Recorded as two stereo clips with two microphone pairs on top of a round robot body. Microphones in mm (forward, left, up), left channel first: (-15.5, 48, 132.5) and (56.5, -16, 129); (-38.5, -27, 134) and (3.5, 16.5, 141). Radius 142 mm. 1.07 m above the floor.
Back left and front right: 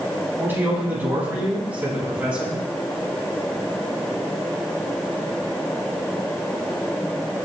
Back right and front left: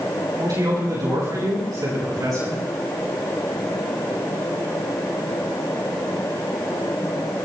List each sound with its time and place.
0.4 s a man speaking: 30° left, 8 m; by 2.6 s 40° left, 8.5 m